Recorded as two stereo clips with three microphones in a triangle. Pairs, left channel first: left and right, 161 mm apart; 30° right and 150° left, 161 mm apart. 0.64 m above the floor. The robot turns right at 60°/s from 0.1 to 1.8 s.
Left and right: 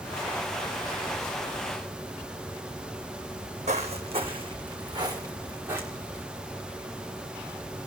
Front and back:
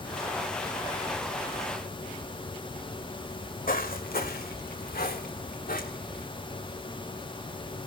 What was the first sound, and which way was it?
Footsteps, 55° right.